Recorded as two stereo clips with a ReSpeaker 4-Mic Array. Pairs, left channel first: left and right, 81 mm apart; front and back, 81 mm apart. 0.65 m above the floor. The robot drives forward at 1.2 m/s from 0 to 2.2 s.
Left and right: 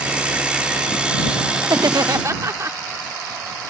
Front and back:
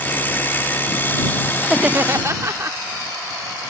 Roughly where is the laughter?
Right.